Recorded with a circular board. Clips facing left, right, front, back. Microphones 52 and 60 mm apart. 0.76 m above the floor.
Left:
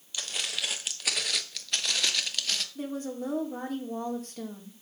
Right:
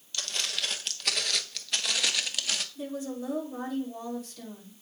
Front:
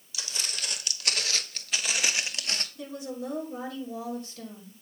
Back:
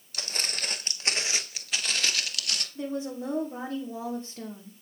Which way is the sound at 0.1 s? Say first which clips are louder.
Even, back 2 dB; 170° left.